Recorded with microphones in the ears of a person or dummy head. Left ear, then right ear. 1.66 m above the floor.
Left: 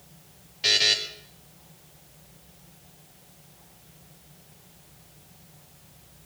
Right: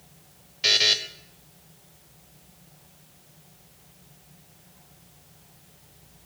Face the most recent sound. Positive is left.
turn(degrees=-15)  # may be behind; listen again after turning